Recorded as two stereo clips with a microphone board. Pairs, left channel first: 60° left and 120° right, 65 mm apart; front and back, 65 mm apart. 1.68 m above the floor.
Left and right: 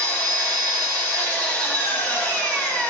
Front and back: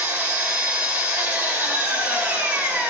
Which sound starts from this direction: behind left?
An engine running, at 0.0 s.